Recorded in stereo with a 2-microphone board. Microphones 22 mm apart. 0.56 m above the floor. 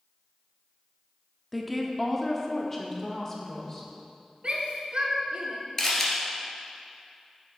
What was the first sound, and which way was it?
A woman speaking, centre (ahead or behind).